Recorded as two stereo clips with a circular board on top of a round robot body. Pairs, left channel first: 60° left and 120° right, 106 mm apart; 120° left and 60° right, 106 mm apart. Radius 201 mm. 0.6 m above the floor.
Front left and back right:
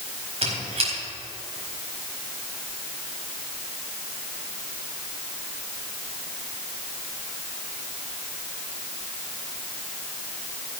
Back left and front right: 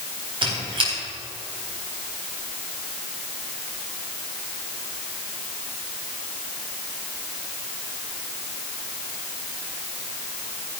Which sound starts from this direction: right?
A squeak, at 0.4 s.